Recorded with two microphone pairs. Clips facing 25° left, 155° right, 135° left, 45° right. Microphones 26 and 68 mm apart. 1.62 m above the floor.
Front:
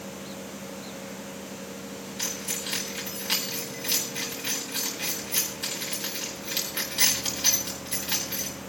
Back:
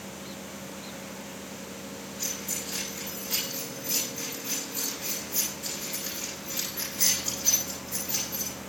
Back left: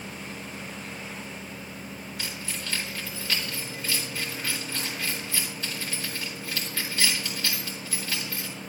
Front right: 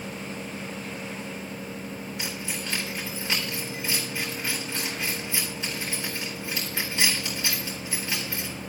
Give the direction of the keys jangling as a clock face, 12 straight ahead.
11 o'clock.